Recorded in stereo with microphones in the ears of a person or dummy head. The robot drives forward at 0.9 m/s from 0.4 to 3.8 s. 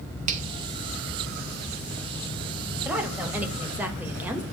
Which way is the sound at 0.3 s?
40° right (ahead or behind).